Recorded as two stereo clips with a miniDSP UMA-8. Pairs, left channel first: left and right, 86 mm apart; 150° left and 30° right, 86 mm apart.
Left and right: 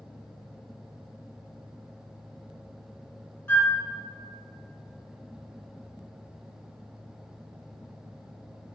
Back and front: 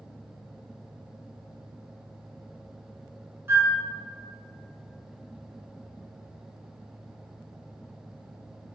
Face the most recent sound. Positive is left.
turn(degrees=30)